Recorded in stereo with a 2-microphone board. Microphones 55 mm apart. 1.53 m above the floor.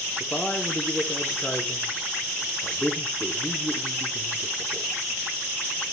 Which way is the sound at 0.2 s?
25° left (ahead or behind).